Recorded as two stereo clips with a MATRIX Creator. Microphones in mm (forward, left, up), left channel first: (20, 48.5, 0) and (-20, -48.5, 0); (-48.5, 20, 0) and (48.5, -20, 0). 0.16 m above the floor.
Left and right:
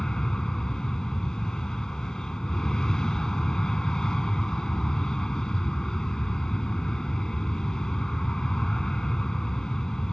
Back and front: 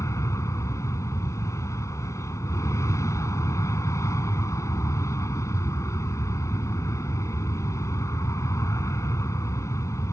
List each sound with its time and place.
0.0 s an aircraft: 145° left